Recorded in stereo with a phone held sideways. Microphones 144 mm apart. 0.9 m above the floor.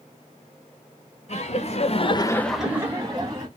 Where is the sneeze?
No sneeze in this recording.